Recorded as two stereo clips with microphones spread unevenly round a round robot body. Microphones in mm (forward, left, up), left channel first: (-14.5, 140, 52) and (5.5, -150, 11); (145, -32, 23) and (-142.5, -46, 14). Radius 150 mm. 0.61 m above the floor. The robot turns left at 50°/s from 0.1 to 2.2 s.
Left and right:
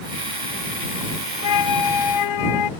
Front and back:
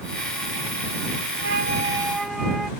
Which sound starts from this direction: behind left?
A flute, at 1.4 s.